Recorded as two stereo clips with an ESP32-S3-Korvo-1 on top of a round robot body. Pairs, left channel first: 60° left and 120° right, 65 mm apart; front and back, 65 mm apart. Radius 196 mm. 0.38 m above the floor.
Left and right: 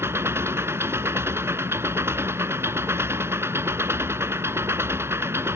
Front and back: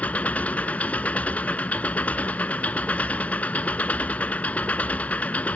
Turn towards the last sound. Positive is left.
turn(degrees=-65)